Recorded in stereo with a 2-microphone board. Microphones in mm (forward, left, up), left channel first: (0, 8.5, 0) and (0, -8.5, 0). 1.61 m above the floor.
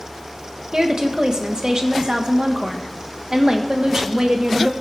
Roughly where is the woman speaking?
Right.